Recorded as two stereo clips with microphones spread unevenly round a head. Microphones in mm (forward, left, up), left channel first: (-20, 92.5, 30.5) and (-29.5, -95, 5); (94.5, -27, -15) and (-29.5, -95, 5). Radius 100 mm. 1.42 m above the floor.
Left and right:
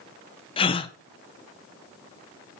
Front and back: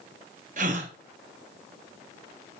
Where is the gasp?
155° left, 0.5 m.